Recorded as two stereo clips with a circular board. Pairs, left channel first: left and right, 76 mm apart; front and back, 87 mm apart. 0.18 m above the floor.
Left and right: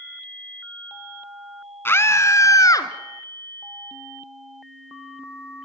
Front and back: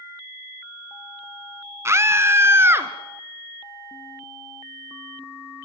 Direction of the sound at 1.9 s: 135° left.